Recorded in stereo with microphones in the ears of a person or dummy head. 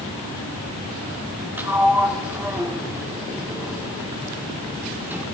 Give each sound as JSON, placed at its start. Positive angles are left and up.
{"t": 1.6, "sound": "a sliding door", "side_deg": -10, "distance_m": 2.0}